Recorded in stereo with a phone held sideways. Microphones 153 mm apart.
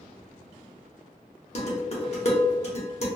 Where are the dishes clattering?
45° left (ahead or behind), 0.9 m.